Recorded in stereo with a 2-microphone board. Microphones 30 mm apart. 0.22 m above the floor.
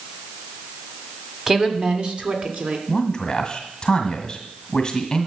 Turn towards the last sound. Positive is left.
turn(degrees=25)  # may be behind; listen again after turning